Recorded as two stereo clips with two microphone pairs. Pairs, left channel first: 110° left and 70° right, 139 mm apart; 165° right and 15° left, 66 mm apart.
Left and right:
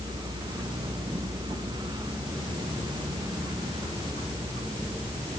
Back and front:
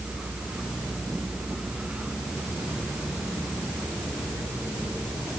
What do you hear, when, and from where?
Only background noise.